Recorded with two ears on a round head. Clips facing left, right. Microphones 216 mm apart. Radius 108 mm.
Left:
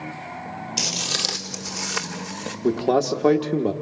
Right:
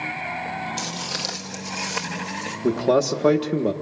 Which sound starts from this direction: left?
Footsteps, at 0.8 s.